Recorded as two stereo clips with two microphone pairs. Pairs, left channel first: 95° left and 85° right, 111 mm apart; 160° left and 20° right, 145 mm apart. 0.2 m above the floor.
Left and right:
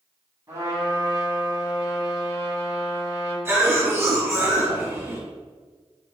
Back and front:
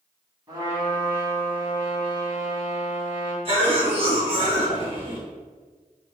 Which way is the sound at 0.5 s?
55° right.